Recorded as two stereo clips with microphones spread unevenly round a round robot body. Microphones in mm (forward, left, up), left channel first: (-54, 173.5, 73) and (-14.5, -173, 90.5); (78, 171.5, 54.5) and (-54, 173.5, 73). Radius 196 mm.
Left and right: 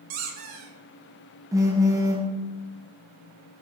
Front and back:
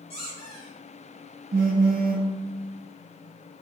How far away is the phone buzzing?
About 0.5 m.